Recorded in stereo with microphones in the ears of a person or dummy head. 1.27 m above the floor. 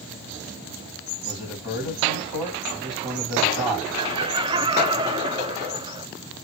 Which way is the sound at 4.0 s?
25° right (ahead or behind).